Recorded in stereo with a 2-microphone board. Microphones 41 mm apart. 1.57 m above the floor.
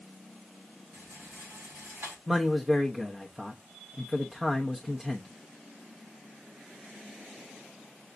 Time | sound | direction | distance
0.9 | a rattle | 75° right (ahead or behind) | 4.5 m
2.3 | a man speaking | 15° right (ahead or behind) | 0.8 m